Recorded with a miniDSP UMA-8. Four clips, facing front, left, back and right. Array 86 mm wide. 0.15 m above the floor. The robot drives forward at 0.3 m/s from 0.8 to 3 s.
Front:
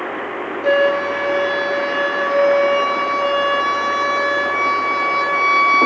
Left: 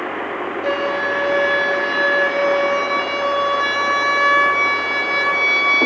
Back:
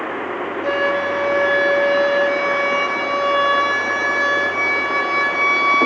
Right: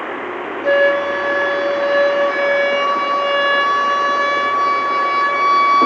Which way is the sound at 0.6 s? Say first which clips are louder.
Right 7 dB, front 5 dB; 70° left.